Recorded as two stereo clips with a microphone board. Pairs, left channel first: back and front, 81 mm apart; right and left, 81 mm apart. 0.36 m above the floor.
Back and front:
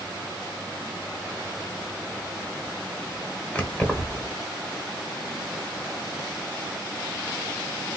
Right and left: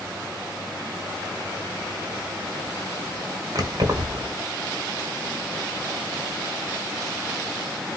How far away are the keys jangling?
About 1.0 m.